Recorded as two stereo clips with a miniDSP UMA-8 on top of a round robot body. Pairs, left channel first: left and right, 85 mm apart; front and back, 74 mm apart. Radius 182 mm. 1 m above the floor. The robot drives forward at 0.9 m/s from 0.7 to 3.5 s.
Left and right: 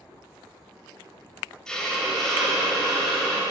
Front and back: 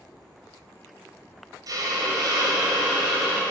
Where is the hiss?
170° left, 1.2 m; by 3.4 s 175° left, 2.5 m.